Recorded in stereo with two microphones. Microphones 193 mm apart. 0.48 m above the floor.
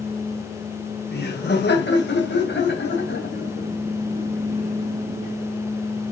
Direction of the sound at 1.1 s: 60° left (ahead or behind).